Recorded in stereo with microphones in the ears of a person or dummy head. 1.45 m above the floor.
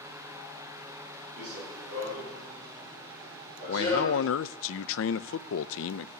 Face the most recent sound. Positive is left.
turn(degrees=65)  # may be behind; listen again after turning